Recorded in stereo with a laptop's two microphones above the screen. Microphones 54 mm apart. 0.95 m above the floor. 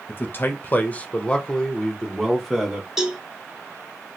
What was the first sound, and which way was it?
A man speaking, 40° left (ahead or behind).